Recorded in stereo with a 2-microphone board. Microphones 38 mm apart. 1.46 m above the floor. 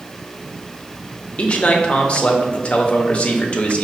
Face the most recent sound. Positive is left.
turn(degrees=30)  # may be behind; listen again after turning